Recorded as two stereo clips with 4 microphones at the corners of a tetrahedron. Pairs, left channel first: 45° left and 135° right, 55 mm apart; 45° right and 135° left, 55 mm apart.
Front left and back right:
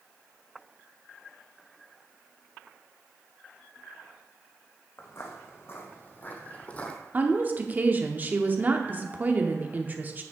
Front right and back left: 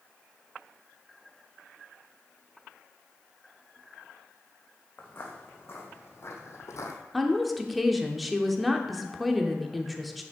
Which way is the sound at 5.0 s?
5° left.